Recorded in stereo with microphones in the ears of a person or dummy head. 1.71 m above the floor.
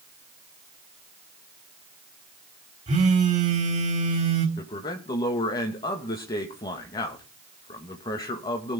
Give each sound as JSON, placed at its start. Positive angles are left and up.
{"t": 2.9, "sound": "a phone buzzing", "side_deg": -30, "distance_m": 3.5}
{"t": 4.6, "sound": "a man speaking", "side_deg": 30, "distance_m": 2.0}